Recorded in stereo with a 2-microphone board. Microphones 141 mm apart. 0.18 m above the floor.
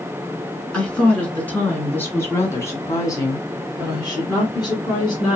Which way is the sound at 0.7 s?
5° left (ahead or behind).